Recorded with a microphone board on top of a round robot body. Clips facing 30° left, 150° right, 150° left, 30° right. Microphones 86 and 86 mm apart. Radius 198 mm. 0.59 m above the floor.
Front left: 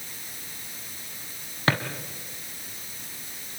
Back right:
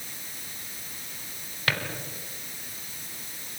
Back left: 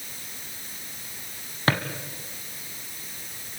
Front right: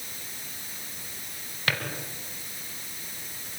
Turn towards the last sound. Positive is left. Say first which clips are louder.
# front left 5 dB, back left 6 dB
turn(degrees=95)